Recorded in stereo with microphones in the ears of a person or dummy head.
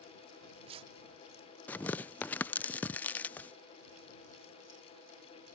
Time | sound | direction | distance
0.3 | tearing paper | 30° right (ahead or behind) | ?
1.7 | tearing paper | 5° left (ahead or behind) | ?